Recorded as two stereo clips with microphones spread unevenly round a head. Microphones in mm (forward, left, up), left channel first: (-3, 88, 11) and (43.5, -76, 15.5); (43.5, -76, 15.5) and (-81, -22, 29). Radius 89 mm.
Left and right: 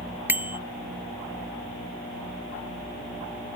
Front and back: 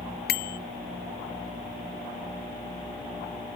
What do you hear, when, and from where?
0.3 s a bicycle bell: 5° left